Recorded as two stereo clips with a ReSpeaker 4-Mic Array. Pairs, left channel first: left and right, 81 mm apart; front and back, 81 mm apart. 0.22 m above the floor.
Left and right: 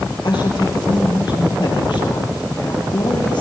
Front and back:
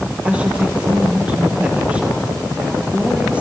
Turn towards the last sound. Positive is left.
turn(degrees=105)